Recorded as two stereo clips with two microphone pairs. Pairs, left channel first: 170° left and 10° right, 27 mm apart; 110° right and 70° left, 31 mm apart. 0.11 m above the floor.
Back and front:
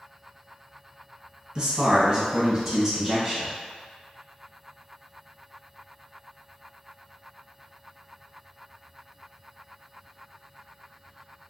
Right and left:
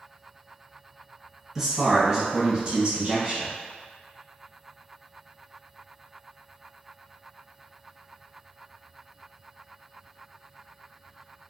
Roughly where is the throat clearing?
I don't hear throat clearing.